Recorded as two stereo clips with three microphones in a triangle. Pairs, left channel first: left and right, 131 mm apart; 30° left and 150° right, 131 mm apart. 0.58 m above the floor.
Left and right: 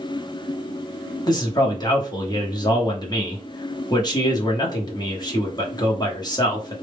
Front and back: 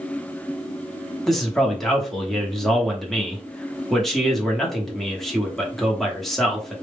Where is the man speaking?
115° left, 0.9 m.